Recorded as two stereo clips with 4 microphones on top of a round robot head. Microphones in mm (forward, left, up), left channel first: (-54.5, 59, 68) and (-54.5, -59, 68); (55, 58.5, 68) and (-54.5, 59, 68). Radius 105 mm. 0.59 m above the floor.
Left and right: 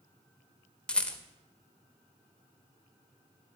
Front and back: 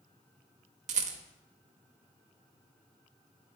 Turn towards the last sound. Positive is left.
turn(degrees=170)